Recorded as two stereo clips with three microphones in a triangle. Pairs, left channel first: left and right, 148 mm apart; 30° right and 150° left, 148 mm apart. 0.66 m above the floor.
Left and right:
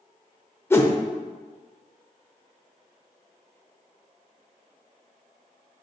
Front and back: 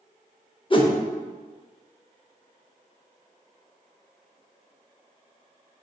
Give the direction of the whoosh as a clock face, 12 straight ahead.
11 o'clock.